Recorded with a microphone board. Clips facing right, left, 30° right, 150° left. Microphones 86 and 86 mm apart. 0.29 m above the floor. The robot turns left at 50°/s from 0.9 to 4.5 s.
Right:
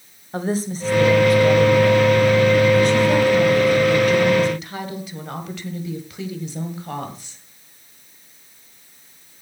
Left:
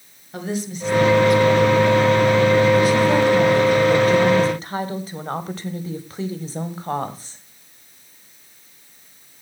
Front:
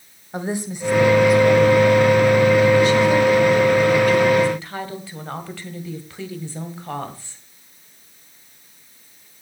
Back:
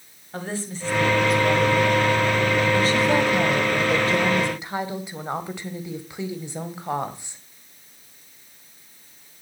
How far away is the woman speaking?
About 1.7 m.